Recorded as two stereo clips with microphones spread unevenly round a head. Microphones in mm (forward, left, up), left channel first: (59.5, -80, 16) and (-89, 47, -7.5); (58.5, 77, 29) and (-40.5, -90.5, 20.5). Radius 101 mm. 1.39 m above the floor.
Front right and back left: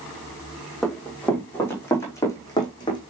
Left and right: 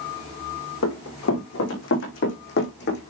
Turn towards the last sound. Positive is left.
turn(degrees=25)